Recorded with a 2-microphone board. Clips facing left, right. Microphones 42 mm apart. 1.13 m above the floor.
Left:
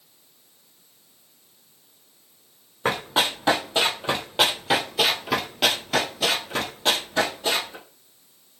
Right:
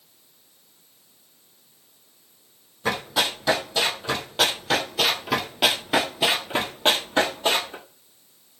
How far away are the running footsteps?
About 1.9 m.